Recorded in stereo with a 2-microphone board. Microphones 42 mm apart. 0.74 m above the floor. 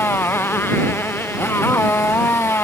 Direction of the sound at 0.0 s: 70° left (ahead or behind).